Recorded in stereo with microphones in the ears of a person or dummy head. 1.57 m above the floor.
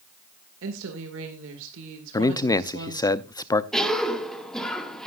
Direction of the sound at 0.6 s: 75° right (ahead or behind).